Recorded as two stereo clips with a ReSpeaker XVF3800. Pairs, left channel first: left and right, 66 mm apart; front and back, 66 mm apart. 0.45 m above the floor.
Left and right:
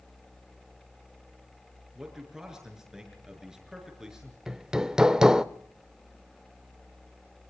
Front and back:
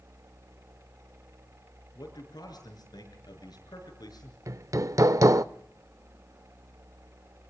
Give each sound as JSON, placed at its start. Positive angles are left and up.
{"t": 1.9, "sound": "a man speaking", "azimuth_deg": -10, "distance_m": 6.5}
{"t": 4.5, "sound": "hammering", "azimuth_deg": -165, "distance_m": 0.5}